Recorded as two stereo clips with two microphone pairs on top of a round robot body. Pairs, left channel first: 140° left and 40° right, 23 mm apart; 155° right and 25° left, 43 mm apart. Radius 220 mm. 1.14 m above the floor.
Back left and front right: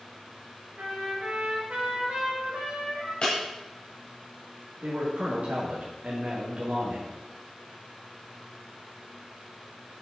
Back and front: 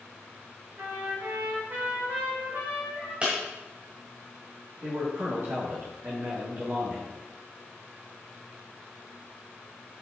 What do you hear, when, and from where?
0.8 s a trumpet: 20° right, 4 m
3.2 s breaking glass: 90° left, 1.6 m
4.8 s a man speaking: 10° right, 2.5 m